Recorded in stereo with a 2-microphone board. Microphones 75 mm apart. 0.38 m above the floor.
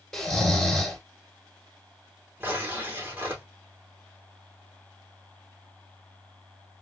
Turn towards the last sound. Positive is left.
turn(degrees=-25)  # may be behind; listen again after turning